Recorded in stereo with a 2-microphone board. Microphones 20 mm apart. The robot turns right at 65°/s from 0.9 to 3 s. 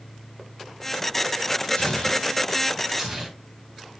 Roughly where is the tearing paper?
Left.